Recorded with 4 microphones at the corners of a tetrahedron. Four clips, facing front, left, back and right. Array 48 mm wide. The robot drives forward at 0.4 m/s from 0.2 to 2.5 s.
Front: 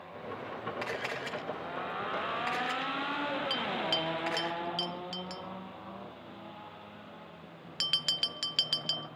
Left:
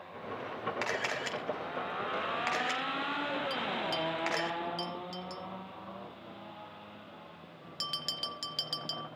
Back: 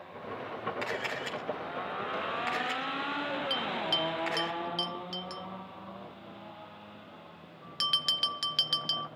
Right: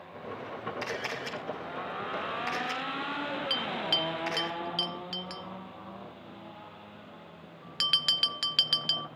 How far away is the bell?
About 0.6 m.